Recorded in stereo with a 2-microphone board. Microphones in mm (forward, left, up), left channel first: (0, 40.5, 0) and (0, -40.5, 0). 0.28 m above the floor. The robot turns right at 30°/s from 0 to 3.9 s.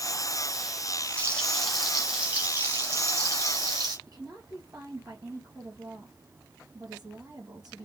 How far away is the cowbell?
No cowbell in this recording.